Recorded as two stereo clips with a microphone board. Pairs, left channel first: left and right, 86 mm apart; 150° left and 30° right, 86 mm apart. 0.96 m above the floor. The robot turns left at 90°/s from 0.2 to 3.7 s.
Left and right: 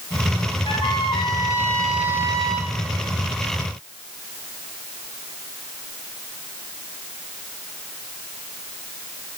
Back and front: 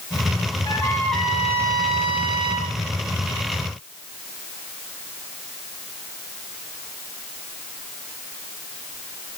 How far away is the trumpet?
About 2.5 m.